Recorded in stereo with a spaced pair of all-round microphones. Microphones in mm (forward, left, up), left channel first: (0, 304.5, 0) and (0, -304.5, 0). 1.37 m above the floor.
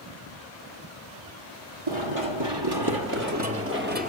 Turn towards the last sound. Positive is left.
turn(degrees=-10)  # may be behind; listen again after turning